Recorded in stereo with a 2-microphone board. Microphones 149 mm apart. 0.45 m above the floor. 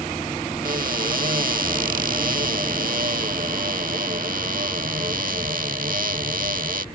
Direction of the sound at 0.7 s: 60° right (ahead or behind).